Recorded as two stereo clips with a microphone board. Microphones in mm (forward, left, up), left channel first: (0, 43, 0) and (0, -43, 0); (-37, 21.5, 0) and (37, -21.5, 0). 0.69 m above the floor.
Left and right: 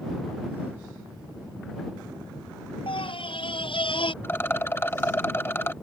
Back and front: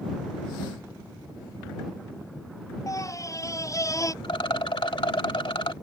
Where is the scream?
100° left.